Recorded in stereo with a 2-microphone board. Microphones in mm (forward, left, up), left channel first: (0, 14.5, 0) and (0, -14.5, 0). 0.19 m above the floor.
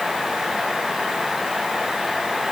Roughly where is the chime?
No chime in this recording.